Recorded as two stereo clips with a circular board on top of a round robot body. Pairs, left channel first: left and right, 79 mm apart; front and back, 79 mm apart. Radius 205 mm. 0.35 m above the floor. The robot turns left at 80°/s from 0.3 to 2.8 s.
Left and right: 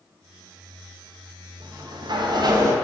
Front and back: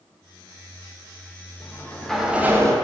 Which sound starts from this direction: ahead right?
A sliding door, at 1.6 s.